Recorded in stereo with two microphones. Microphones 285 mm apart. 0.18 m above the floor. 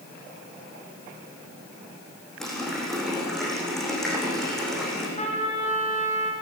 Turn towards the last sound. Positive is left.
turn(degrees=25)  # may be behind; listen again after turning